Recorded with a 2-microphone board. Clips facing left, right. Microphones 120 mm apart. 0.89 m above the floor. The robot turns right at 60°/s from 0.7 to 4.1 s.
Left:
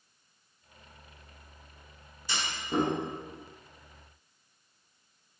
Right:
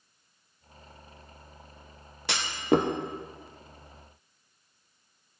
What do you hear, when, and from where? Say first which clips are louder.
2.3 s a clunk: right 9 dB; 75° right (ahead or behind), 0.6 m; by 2.9 s 65° right (ahead or behind), 0.6 m